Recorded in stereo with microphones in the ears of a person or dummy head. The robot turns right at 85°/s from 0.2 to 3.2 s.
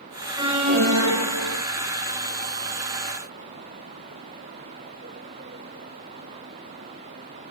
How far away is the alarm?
About 1.7 m.